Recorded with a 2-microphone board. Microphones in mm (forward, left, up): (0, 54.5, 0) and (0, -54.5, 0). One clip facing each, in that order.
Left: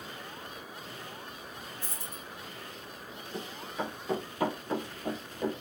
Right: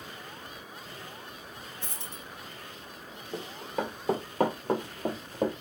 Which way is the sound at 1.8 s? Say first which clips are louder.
Even; 80° right.